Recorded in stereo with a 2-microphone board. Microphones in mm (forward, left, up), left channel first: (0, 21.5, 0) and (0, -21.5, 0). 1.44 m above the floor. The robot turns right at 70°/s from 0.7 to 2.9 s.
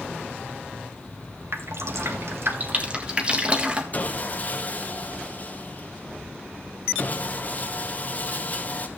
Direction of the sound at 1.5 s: 55° right (ahead or behind).